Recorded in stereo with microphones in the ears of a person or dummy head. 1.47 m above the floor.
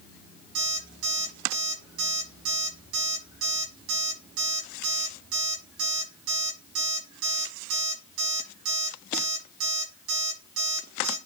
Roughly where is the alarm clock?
Right.